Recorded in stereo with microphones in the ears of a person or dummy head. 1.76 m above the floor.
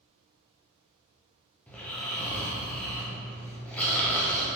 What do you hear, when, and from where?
1.7 s snoring: 10° left (ahead or behind), 1.2 m